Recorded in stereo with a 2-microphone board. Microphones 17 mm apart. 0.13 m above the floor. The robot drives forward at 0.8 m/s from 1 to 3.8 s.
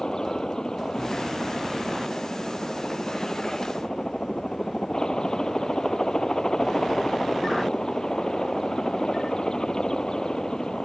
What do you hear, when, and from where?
0.0 s a helicopter: 40° left (ahead or behind); by 10.8 s 45° left (ahead or behind)